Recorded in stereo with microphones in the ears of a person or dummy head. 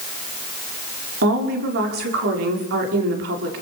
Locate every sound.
1.2 s a woman speaking: 65° right (ahead or behind), 5.5 m